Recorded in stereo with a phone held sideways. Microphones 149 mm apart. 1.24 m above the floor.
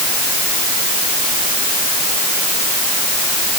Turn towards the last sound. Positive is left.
No sound to turn to.